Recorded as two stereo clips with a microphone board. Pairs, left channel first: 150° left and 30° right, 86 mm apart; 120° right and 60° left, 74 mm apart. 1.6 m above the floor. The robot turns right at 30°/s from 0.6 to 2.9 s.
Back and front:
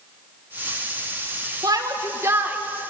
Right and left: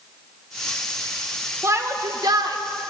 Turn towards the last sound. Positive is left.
turn(degrees=50)